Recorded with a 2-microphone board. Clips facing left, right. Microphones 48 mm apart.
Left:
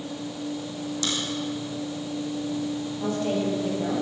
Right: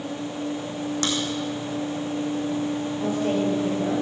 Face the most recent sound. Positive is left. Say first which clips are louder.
# right 2 dB
turn(degrees=-10)  # may be behind; listen again after turning